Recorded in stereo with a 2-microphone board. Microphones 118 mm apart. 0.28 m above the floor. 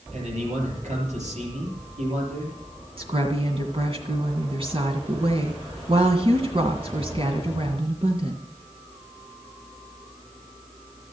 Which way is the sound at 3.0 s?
50° right (ahead or behind).